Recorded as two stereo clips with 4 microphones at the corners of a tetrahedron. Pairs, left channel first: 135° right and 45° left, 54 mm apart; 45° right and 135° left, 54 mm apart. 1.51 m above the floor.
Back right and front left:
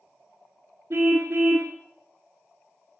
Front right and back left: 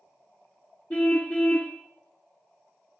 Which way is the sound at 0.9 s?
15° left.